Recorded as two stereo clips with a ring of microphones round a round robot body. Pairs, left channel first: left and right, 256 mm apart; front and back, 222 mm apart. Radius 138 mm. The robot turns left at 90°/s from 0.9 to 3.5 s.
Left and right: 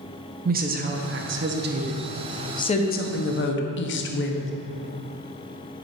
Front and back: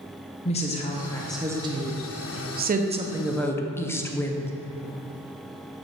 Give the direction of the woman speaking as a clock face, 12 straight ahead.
2 o'clock.